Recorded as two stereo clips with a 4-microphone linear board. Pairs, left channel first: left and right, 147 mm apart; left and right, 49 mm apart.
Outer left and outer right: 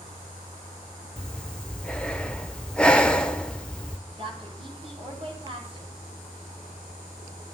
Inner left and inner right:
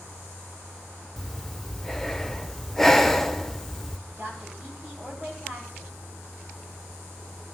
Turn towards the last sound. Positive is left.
turn(degrees=-40)  # may be behind; listen again after turning